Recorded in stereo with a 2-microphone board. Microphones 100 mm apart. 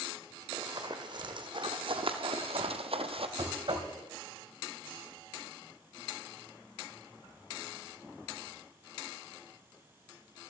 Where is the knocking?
60° right (ahead or behind), 1.8 m.